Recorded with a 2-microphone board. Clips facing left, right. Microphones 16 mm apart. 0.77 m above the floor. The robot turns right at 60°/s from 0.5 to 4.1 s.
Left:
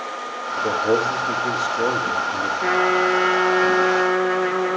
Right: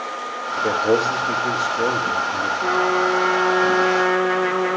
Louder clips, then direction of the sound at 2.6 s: Left 1 dB; 110° left.